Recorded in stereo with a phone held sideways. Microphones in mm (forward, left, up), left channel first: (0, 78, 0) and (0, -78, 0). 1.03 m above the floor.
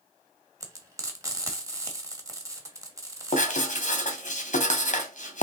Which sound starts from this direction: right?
Frying, at 0.6 s.